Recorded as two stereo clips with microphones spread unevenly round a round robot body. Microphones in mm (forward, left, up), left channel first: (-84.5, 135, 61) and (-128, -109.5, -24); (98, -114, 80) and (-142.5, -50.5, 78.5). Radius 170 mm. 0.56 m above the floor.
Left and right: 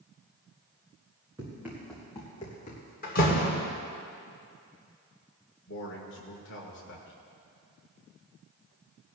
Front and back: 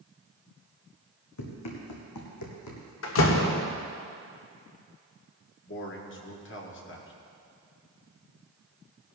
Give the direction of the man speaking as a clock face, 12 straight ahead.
11 o'clock.